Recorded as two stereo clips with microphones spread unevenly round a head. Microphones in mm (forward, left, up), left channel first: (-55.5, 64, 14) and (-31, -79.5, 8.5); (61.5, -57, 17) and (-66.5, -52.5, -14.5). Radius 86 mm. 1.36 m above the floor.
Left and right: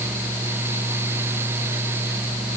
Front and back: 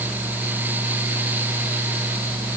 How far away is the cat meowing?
No cat meowing in this recording.